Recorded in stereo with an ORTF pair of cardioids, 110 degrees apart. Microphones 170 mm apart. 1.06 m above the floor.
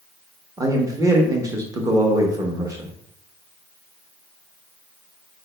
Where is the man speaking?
20° right, 1.2 m.